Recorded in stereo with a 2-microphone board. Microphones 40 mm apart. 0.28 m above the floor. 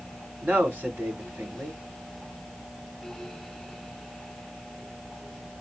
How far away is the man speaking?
About 2.5 m.